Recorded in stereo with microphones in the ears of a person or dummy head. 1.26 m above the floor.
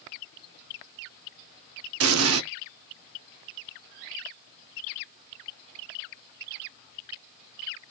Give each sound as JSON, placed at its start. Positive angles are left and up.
{"t": 2.0, "sound": "an explosion", "side_deg": -75, "distance_m": 0.5}